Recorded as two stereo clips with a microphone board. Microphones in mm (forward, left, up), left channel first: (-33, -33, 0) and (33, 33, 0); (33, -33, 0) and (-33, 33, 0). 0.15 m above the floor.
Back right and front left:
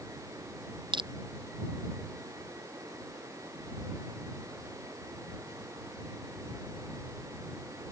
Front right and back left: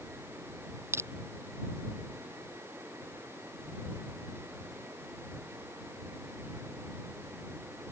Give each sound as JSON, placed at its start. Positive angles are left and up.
{"t": 0.9, "sound": "crushing", "azimuth_deg": 70}